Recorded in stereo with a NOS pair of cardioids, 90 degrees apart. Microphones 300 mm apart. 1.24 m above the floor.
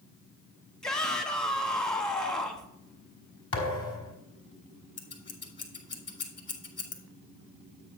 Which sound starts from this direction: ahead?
A shout, at 0.8 s.